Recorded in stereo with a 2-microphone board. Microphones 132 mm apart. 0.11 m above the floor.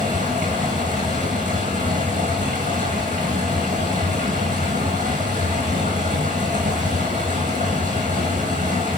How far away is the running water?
About 3.5 m.